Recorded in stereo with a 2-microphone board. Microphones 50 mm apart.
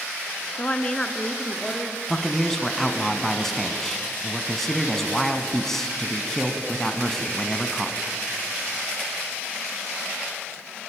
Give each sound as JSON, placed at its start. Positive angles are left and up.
{"t": 0.6, "sound": "a woman speaking", "side_deg": 30, "distance_m": 1.4}
{"t": 2.1, "sound": "a man speaking", "side_deg": 10, "distance_m": 1.8}